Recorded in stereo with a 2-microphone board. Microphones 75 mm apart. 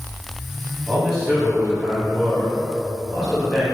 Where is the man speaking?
10° right (ahead or behind), 1.0 m.